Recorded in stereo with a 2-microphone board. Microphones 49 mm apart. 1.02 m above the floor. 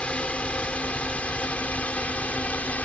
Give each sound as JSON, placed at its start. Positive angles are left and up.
{"t": 0.0, "sound": "a drone", "side_deg": 25}